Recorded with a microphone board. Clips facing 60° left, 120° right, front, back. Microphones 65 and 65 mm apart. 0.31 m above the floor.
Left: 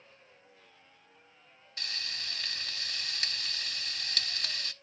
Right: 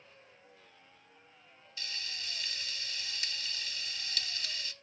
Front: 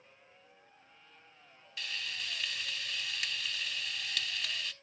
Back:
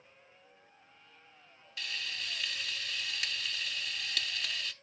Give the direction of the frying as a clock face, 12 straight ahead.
9 o'clock.